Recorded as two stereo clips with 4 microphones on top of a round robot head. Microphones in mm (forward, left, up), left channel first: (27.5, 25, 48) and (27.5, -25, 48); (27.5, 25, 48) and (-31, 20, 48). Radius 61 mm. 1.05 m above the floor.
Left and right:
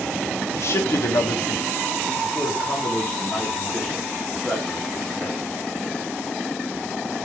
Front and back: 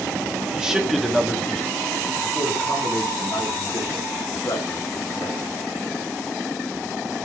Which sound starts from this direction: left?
A man speaking, at 0.5 s.